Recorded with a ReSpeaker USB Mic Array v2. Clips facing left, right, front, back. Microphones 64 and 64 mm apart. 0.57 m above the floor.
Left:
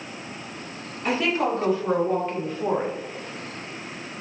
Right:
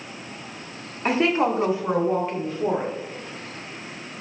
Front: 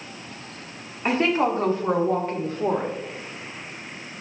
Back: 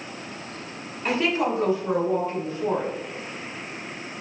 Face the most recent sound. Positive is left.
turn(degrees=10)